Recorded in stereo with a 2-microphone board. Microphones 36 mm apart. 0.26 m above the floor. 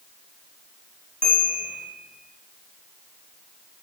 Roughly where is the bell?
Left.